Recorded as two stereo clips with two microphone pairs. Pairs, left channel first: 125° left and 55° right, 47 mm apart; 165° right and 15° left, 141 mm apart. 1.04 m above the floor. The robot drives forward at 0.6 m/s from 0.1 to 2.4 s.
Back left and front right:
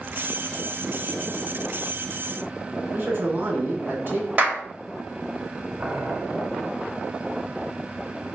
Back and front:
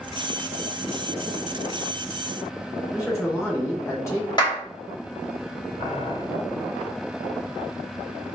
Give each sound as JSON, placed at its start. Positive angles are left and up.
{"t": 2.9, "sound": "a man speaking", "azimuth_deg": -100, "distance_m": 3.0}
{"t": 4.4, "sound": "a clap", "azimuth_deg": -115, "distance_m": 1.8}
{"t": 5.8, "sound": "boiling", "azimuth_deg": -110, "distance_m": 1.4}